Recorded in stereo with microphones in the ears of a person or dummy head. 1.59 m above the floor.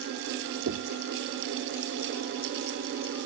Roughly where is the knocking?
Right.